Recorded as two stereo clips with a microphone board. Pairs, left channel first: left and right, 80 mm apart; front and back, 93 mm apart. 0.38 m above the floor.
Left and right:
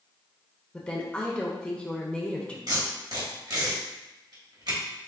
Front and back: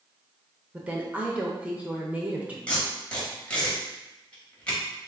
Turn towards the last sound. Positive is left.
turn(degrees=-75)